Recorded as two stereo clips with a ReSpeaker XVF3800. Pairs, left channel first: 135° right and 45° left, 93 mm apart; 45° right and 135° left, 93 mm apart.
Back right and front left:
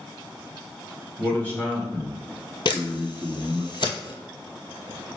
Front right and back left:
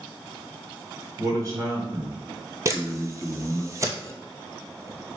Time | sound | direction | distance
1.2 | a man speaking | 160° left | 1.6 m
2.6 | a camera shutter | 170° right | 0.7 m